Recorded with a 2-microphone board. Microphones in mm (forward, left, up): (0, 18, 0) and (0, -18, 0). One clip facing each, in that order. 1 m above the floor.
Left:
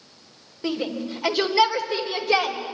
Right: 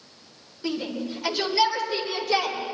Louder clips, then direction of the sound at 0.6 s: Left 2 dB; 20° left (ahead or behind).